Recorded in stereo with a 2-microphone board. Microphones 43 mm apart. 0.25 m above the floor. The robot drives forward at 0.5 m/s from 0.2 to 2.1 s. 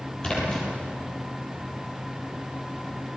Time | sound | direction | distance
0.2 | a splash | 25° left (ahead or behind) | 8.5 m